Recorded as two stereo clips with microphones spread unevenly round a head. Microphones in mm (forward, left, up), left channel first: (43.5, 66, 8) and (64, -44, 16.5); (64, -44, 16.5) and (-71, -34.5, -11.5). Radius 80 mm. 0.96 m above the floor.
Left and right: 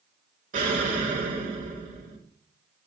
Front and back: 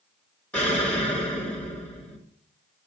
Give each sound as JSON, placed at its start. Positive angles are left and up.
{"t": 0.5, "sound": "an explosion", "azimuth_deg": -85, "distance_m": 2.5}